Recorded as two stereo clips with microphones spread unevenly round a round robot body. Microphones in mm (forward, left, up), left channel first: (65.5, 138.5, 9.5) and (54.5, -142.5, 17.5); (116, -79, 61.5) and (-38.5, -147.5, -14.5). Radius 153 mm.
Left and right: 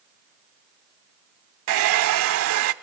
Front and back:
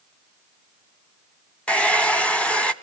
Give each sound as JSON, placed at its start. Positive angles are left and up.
{"t": 1.7, "sound": "a hair dryer", "azimuth_deg": -50, "distance_m": 0.5}